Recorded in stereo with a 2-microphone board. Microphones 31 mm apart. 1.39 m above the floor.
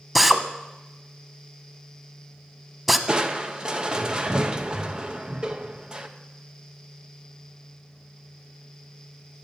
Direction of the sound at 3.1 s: 30° right (ahead or behind).